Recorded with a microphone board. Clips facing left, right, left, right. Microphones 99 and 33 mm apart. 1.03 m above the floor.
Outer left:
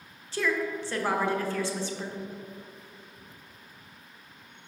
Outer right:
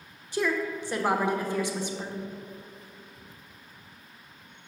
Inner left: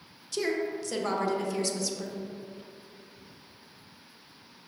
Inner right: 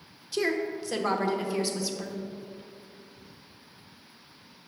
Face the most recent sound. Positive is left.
turn(degrees=-20)  # may be behind; listen again after turning